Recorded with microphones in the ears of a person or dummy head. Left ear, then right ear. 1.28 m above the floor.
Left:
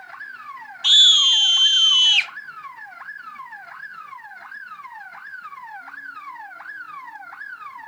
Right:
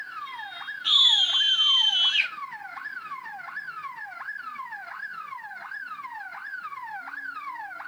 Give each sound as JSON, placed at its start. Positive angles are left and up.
{"t": 0.8, "sound": "a scream", "side_deg": 80, "distance_m": 1.5}